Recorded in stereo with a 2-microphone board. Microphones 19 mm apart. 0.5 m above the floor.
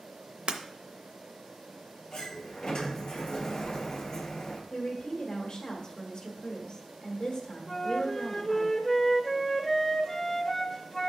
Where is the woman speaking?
55° left (ahead or behind), 1.6 m.